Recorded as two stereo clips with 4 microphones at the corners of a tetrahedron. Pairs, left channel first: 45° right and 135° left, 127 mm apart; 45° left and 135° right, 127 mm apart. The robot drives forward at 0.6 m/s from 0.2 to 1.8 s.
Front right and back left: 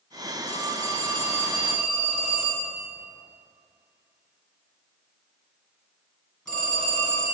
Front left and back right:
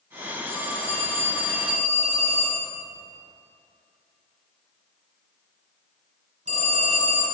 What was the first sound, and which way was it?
A phone ringing, 115° right.